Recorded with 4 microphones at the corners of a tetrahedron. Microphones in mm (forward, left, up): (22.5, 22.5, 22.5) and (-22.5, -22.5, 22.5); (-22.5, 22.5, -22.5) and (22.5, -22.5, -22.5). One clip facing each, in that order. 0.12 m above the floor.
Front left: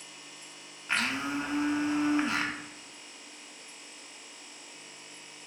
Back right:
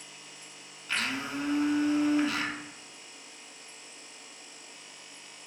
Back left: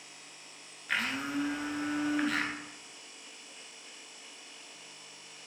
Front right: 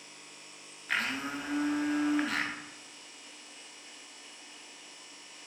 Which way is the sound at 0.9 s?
40° left.